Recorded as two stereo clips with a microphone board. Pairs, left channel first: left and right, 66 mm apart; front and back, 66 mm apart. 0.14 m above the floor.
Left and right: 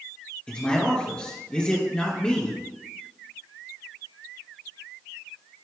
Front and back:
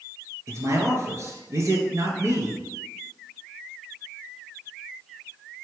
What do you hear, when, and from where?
0.5 s a man speaking: 160° left, 2.5 m